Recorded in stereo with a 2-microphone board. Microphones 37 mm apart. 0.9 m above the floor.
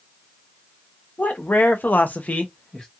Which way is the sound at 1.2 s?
55° left (ahead or behind).